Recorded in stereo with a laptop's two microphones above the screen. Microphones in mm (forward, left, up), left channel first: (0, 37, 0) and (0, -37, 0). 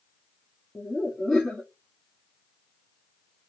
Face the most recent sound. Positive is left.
turn(degrees=5)  # may be behind; listen again after turning